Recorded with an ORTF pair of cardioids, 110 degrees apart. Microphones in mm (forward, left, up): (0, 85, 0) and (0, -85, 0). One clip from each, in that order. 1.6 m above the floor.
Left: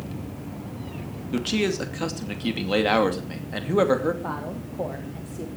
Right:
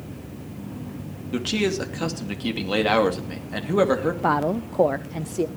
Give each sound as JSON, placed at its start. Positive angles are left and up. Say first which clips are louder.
{"t": 1.3, "sound": "a man speaking", "louder": "right 1 dB", "azimuth_deg": -5, "distance_m": 2.5}
{"t": 4.2, "sound": "a woman speaking", "louder": "right 10 dB", "azimuth_deg": -50, "distance_m": 0.6}